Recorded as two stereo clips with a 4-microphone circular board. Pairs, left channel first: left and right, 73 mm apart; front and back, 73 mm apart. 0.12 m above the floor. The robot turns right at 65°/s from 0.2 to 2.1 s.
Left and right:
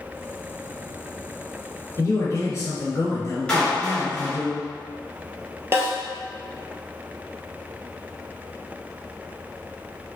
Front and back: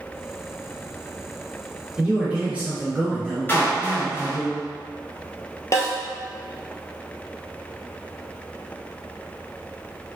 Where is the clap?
25° left, 1.5 m.